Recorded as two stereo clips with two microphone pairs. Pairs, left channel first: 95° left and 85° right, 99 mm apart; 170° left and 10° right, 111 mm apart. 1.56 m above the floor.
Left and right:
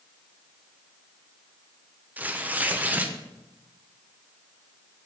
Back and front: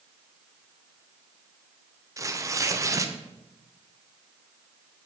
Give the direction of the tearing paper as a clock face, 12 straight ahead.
1 o'clock.